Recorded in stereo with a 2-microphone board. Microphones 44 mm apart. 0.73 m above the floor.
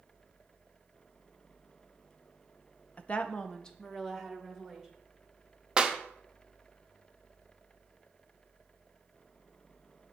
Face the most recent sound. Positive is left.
turn(degrees=-20)  # may be behind; listen again after turning